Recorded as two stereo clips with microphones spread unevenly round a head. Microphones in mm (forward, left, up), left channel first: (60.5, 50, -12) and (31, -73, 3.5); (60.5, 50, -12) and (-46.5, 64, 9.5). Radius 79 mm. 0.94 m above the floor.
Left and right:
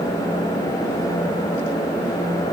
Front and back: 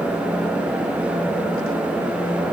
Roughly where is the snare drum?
No snare drum in this recording.